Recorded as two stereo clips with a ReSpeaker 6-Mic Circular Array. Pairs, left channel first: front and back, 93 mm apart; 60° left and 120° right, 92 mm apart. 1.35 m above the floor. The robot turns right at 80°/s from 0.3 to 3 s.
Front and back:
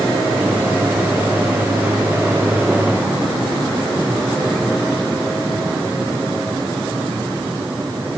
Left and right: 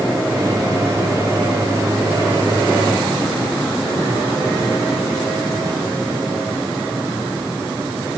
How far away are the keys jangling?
No keys jangling in this recording.